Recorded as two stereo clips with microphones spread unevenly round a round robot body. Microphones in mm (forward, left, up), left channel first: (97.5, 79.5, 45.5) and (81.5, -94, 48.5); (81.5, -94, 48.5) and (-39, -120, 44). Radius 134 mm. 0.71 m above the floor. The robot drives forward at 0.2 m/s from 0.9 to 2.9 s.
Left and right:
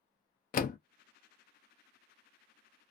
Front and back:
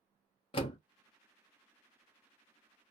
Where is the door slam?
55° left, 0.6 m.